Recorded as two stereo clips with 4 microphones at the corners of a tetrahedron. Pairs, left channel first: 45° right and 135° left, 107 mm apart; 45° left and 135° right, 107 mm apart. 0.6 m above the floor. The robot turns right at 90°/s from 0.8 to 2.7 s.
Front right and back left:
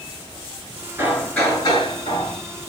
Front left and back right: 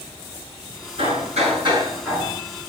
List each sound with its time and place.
1.0 s hammering: 155° right, 7 m; by 2.4 s 30° right, 7 m